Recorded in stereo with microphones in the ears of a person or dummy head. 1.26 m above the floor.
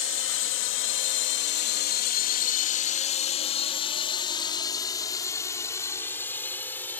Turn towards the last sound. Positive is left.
turn(degrees=10)  # may be behind; listen again after turning